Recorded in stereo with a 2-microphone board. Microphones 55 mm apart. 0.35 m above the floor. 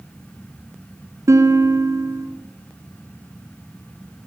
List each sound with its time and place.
1.3 s a guitar: 65° right (ahead or behind), 6 m